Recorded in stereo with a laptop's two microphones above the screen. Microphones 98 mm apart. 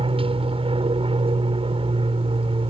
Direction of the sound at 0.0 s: 70° right (ahead or behind).